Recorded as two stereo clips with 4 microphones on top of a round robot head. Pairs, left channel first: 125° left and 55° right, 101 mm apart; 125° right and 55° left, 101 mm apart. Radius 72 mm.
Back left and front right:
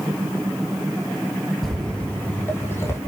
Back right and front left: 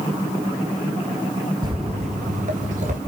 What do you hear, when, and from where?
1.6 s footsteps: 35° left, 1.3 m; by 3.0 s 60° left, 2.5 m